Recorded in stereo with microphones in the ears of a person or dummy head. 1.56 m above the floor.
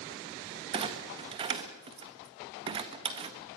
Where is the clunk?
25° right (ahead or behind), 1.4 m.